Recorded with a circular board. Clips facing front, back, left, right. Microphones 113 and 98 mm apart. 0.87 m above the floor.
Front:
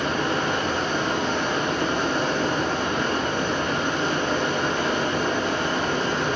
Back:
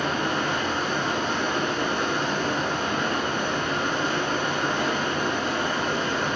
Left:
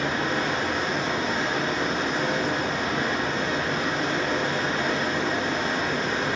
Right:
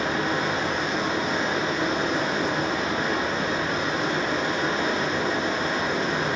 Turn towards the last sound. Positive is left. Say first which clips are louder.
# front 2 dB, right 1 dB
turn(degrees=-15)